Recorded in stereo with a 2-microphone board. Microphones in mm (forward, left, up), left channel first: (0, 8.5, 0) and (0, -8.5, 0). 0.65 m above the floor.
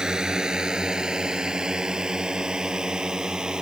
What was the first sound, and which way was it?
A drone, 50° right (ahead or behind).